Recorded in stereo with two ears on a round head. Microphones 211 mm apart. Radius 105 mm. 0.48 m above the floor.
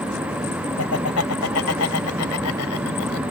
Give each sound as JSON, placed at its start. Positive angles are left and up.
{"t": 0.8, "sound": "laughter", "side_deg": 70}